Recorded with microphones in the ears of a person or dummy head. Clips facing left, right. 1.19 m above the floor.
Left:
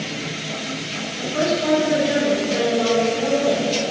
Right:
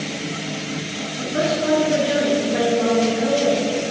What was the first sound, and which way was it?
A woman speaking, 30° right (ahead or behind).